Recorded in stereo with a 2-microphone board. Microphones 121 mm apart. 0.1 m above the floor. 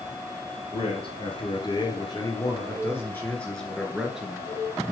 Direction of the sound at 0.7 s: 50° left (ahead or behind).